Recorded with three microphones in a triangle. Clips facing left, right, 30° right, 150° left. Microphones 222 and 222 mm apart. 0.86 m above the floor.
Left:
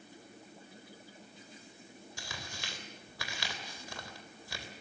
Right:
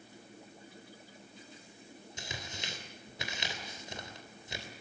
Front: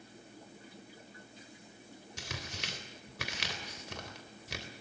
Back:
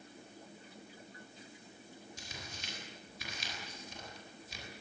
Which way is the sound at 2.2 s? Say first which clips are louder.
Right 3 dB, front 5 dB; 20° right.